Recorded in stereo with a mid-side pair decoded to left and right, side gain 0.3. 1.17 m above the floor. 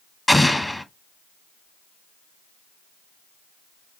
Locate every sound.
0.3 s an explosion: 10° left, 0.9 m